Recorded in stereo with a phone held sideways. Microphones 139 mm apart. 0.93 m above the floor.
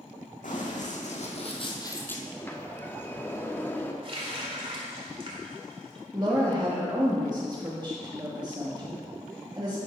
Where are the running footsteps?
70° left (ahead or behind), 2.5 m; by 2.2 s 10° left (ahead or behind), 1.2 m.